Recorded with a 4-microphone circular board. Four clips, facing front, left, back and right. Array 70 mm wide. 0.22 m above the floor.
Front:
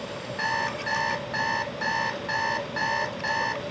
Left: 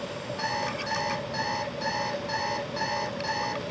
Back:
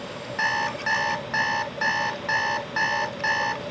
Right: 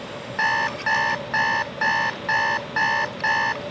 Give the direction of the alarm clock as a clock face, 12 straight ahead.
4 o'clock.